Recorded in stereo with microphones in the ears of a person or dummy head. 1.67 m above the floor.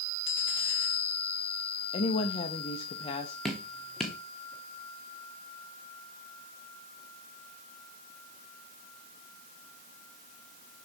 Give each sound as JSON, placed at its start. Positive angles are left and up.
{"t": 1.9, "sound": "a woman speaking", "side_deg": 30, "distance_m": 0.5}
{"t": 3.5, "sound": "dripping", "side_deg": 0, "distance_m": 1.0}